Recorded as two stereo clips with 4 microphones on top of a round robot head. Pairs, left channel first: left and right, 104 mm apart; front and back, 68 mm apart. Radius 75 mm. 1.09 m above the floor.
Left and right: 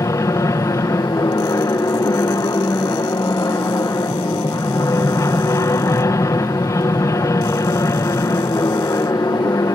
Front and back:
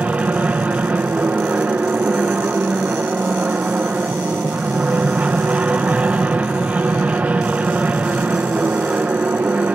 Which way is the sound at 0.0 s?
125° left.